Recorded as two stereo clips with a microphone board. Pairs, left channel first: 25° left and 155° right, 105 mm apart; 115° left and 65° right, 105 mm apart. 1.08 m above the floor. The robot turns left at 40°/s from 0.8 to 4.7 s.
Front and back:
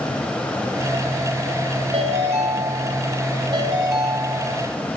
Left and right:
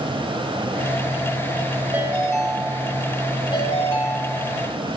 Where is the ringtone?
135° right, 3.5 m; by 4.6 s 120° left, 3.5 m.